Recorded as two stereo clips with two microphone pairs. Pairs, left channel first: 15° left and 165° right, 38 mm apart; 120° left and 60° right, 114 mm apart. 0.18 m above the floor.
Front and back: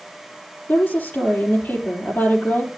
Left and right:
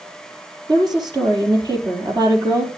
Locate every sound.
0.7 s a woman speaking: 10° right, 4 m